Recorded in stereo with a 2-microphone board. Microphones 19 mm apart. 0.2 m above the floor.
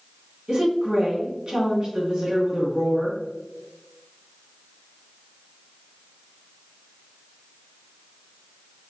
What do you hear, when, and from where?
0.5 s a woman speaking: 40° right (ahead or behind), 1.7 m